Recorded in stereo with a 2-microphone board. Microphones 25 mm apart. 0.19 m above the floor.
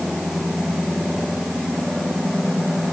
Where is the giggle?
I don't hear a giggle.